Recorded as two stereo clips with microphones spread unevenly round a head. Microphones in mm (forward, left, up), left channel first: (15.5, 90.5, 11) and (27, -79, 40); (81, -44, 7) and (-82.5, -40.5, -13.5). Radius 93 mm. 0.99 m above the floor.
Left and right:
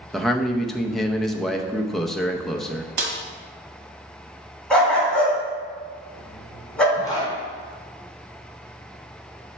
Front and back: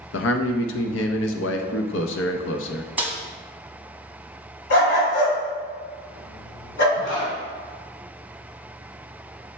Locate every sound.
0.1 s a man speaking: 10° left, 0.7 m
3.0 s a snare drum: 105° right, 1.1 m
4.7 s a dog barking: 5° left, 2 m
7.0 s a zipper: 20° left, 2.5 m